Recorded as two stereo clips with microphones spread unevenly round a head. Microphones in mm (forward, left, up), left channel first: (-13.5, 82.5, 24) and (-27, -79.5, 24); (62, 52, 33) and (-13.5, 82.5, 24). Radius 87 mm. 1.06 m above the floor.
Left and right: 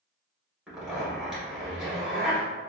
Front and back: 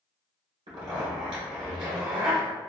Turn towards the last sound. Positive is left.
turn(degrees=180)